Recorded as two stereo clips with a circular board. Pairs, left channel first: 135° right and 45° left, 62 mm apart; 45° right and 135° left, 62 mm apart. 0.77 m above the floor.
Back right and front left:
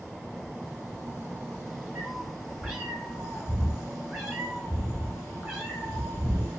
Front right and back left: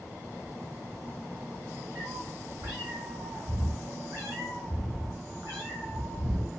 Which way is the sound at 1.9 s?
125° left.